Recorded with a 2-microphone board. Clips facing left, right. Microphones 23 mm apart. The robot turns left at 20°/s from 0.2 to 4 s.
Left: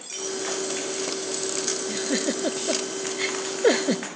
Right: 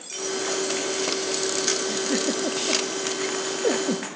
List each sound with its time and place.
1.9 s a giggle: 10° left (ahead or behind), 0.7 m; by 4.1 s 50° left (ahead or behind), 0.7 m